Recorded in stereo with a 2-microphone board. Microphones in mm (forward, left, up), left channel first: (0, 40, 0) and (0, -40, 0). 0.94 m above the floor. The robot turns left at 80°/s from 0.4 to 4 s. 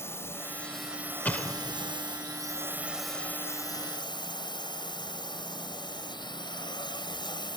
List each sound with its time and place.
0.0 s a drone: 30° left; by 7.6 s 105° left
1.2 s an explosion: 20° left (ahead or behind); by 1.9 s 5° left (ahead or behind)